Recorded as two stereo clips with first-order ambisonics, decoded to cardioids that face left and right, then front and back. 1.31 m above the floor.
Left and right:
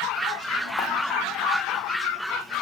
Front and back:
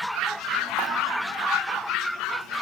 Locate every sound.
0.8 s dishes clattering: 120° left, 1.4 m